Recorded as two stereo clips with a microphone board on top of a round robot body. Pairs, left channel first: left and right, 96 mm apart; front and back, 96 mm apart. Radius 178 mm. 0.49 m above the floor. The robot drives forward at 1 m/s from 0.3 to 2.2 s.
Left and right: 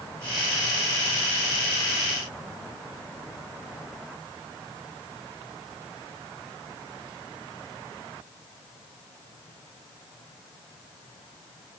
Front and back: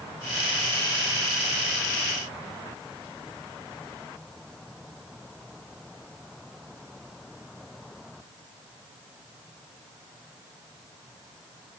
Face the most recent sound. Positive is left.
No sound to turn to.